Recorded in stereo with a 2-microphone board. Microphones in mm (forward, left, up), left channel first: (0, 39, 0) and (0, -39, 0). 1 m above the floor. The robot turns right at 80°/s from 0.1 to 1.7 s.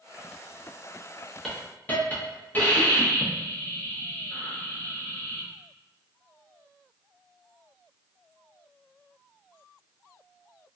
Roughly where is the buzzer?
I don't hear a buzzer.